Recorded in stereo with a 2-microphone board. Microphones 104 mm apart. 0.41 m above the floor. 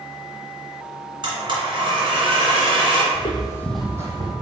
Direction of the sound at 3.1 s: 55° left (ahead or behind).